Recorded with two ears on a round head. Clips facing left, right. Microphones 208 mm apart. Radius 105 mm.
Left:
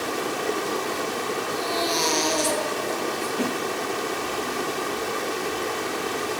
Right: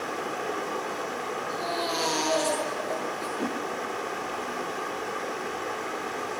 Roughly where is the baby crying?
Left.